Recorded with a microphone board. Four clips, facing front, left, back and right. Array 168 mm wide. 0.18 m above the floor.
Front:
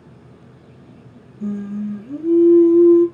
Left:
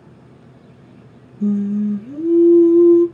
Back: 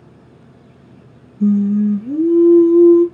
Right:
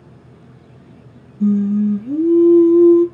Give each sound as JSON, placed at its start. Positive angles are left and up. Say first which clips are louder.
{"t": 1.4, "sound": "singing", "louder": "right 3 dB, back 11 dB", "azimuth_deg": -145, "distance_m": 1.5}